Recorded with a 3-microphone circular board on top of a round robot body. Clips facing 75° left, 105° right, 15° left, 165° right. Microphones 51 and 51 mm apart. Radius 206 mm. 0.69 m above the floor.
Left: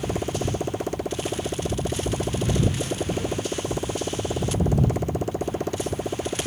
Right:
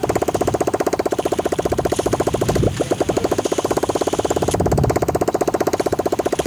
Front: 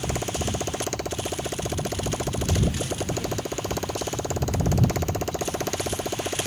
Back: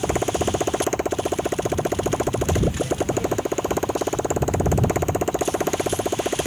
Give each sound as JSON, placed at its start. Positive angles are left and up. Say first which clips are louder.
{"t": 0.0, "sound": "a motorcycle", "louder": "right 9 dB, back 7 dB", "azimuth_deg": -100}